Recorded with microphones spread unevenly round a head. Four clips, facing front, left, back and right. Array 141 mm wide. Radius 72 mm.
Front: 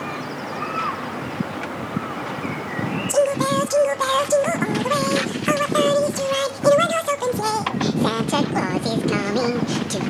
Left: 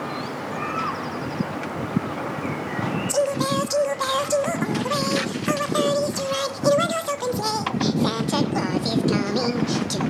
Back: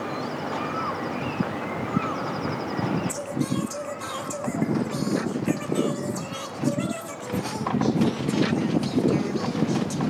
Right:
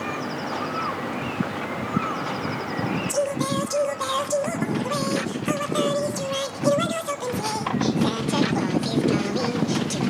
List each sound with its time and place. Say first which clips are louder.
3.1 s singing: left 4 dB, front 9 dB; 10° left, 1.0 m